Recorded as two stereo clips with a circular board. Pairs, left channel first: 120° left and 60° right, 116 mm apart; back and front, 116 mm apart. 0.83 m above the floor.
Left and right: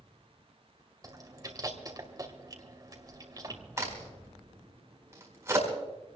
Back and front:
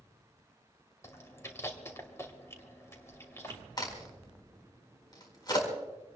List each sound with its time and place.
1.0 s chewing: 115° right, 2.5 m
3.8 s a crack: 125° right, 4.5 m